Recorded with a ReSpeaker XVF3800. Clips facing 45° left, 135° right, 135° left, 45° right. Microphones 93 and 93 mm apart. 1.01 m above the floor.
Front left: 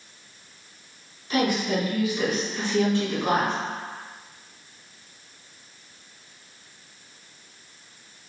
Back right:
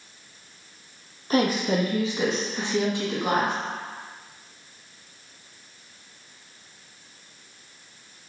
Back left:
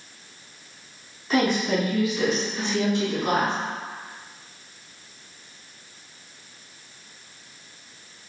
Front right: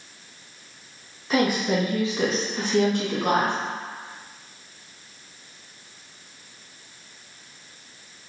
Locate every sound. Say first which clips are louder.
1.3 s a woman speaking: back right 1 dB, even; 130° right, 0.9 m; by 3.5 s 55° right, 1.4 m